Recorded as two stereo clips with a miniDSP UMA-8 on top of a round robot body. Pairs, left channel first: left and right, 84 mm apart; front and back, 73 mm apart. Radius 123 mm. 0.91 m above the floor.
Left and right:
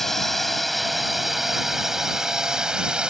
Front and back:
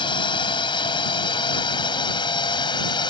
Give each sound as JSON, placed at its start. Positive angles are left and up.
{"t": 0.0, "sound": "a drone", "azimuth_deg": 5}